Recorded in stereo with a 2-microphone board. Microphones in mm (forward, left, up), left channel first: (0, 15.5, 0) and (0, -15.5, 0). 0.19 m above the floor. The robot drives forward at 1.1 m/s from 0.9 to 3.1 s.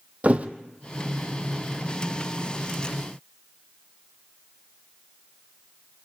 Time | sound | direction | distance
0.2 | a thud | 45° right (ahead or behind) | 1.4 m